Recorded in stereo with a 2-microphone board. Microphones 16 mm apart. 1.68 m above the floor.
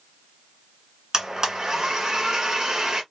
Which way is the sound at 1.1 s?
40° right (ahead or behind).